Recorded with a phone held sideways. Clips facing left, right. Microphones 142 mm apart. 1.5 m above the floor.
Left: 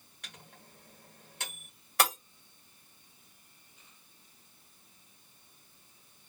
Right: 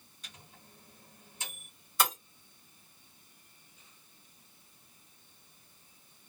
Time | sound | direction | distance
0.2 | a microwave | 60° left (ahead or behind) | 1.2 m
2.0 | breaking glass | 65° left (ahead or behind) | 1.5 m